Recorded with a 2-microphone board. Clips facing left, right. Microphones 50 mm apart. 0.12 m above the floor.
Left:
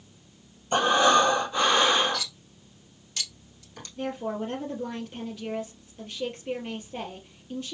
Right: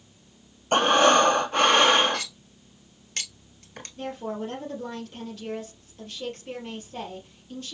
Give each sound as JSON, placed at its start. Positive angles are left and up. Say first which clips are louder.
{"t": 0.7, "sound": "breathing", "louder": "right 2 dB", "side_deg": -60, "distance_m": 0.8}
{"t": 2.1, "sound": "cutlery clinking", "louder": "right 1 dB", "side_deg": -50, "distance_m": 1.2}
{"t": 4.0, "sound": "a woman speaking", "louder": "left 1 dB", "side_deg": 20, "distance_m": 3.0}